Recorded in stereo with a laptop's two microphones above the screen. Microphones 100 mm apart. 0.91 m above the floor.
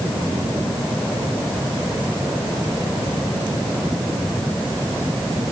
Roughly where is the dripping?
No dripping in this recording.